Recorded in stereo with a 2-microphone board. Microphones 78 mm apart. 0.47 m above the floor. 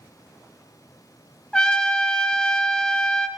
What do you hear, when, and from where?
1.5 s a trumpet: 10° left (ahead or behind), 0.5 m